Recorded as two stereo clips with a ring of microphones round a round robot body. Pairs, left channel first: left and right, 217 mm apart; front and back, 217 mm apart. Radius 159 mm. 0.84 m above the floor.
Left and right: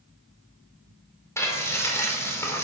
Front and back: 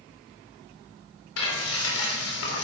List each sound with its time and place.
1.4 s frying: 10° left, 3.5 m